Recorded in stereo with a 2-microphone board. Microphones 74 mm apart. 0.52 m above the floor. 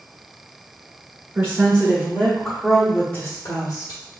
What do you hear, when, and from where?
1.4 s a woman speaking: 30° right (ahead or behind), 1.6 m; by 4.0 s 50° left (ahead or behind), 1.3 m